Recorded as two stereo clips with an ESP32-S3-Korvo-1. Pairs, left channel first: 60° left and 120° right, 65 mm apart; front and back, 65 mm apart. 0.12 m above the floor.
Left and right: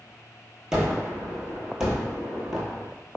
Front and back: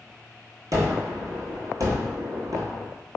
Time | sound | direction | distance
0.7 | a gunshot | 160° left | 0.9 m